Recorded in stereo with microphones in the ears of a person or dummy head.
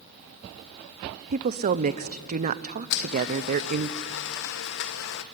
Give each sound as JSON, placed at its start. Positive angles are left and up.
{"t": 1.3, "sound": "a woman speaking", "side_deg": -45, "distance_m": 0.8}
{"t": 2.9, "sound": "a blender", "side_deg": 60, "distance_m": 1.1}